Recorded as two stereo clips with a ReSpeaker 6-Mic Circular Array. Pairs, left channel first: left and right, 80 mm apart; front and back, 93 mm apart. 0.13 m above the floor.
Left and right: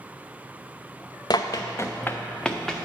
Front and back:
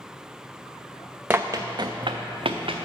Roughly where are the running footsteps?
Left.